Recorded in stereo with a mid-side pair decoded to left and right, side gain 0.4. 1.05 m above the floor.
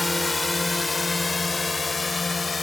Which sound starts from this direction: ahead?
A drone, at 0.0 s.